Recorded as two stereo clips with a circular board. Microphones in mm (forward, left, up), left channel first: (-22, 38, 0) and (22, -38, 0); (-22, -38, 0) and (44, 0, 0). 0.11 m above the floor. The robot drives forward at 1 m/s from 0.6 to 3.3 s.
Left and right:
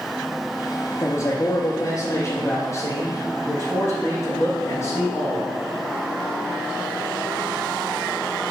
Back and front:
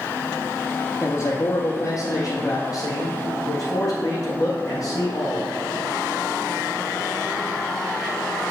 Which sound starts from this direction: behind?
A man speaking, at 1.0 s.